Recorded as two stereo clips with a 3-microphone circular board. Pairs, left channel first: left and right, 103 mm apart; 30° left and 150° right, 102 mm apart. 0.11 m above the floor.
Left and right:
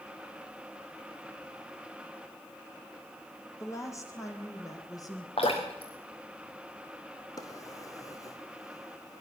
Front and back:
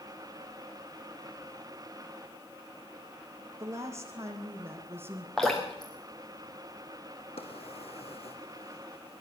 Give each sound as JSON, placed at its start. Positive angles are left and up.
{"t": 3.6, "sound": "a woman speaking", "azimuth_deg": 150, "distance_m": 5.5}
{"t": 5.4, "sound": "dripping", "azimuth_deg": 115, "distance_m": 6.0}
{"t": 7.4, "sound": "a drawer", "azimuth_deg": 35, "distance_m": 3.5}